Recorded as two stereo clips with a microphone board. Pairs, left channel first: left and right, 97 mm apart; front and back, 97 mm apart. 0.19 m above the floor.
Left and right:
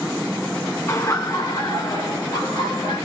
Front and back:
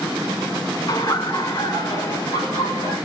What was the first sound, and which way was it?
Laughter, 35° left.